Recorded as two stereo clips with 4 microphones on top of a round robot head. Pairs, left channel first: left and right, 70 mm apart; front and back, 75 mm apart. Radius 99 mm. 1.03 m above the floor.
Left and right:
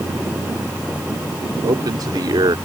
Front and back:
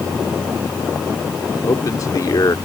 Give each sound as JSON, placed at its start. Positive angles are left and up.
{"t": 1.6, "sound": "a man speaking", "azimuth_deg": -50}